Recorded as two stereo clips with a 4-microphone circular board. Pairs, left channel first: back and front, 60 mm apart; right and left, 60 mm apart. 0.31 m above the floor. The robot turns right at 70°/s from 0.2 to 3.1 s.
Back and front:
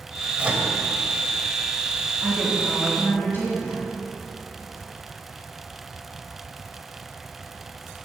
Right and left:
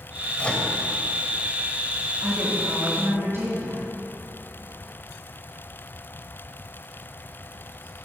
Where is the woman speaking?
60° left, 3 m; by 3.8 s 125° left, 3 m.